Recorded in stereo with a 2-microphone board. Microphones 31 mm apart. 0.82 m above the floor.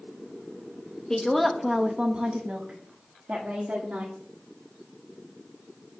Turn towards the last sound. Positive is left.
turn(degrees=-75)  # may be behind; listen again after turning